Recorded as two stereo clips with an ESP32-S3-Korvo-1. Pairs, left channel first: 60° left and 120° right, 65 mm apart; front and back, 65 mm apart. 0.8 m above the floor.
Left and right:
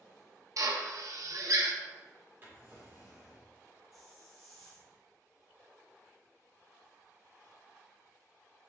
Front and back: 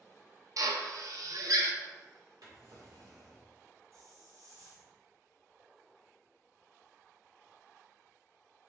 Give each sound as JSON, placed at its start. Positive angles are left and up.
{"t": 0.6, "sound": "a drill", "azimuth_deg": -155, "distance_m": 0.6}
{"t": 2.4, "sound": "a drawer", "azimuth_deg": 180, "distance_m": 1.4}
{"t": 3.9, "sound": "a hiss", "azimuth_deg": 145, "distance_m": 1.1}